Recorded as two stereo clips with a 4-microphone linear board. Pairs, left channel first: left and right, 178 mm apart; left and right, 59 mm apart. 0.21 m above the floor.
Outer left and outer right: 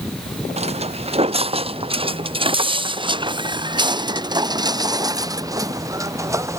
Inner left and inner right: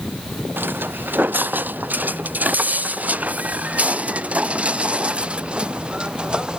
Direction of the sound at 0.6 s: 35° right (ahead or behind).